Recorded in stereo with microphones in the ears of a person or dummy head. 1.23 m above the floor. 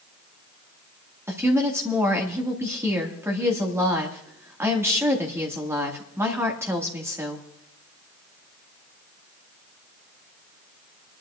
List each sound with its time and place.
1.3 s a woman speaking: 15° right (ahead or behind), 2.0 m